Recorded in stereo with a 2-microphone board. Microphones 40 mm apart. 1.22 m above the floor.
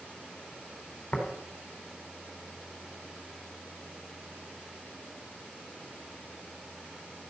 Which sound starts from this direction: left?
Tapping, at 1.1 s.